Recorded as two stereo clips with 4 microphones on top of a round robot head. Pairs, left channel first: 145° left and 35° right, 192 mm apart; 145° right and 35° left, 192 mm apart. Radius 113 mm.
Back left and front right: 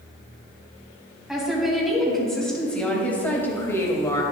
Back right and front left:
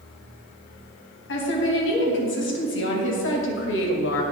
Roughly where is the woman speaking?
Behind right.